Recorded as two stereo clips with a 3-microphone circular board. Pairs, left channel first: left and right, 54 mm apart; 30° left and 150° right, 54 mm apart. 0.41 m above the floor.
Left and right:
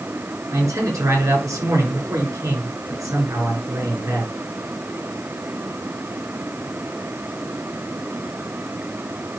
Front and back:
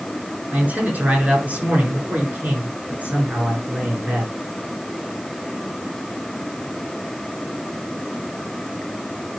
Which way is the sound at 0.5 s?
90° right.